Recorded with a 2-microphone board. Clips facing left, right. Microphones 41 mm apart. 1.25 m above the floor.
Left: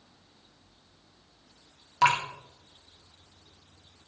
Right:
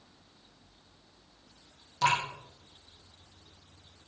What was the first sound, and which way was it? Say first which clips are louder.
Dripping: left 4 dB; 80° left.